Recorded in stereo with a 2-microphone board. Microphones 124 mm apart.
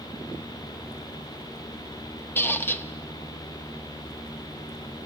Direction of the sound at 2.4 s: 15° left (ahead or behind).